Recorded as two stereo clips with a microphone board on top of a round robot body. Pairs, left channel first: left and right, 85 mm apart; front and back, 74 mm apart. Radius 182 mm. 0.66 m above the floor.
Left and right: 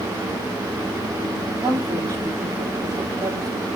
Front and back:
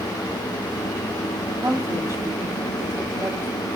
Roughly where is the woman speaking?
Behind right.